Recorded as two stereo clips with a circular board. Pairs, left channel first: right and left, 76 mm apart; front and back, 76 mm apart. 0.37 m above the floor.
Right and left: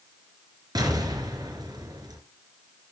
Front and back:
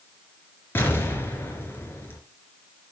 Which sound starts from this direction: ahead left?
An explosion, at 0.8 s.